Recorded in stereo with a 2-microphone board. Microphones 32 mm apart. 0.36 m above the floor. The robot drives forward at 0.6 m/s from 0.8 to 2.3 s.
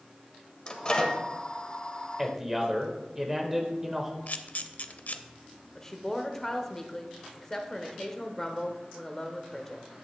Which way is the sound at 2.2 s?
15° right (ahead or behind).